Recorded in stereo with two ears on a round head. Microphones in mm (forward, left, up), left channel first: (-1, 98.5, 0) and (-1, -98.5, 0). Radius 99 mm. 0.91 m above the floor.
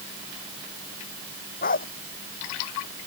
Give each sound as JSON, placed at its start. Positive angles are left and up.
{"t": 1.6, "sound": "a dog barking", "side_deg": 40}